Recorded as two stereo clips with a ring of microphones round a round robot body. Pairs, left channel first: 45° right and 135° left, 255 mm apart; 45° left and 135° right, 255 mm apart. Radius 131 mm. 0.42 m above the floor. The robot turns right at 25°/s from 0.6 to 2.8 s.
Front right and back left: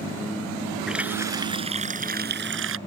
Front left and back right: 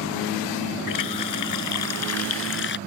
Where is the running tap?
45° left; by 2.8 s 95° left.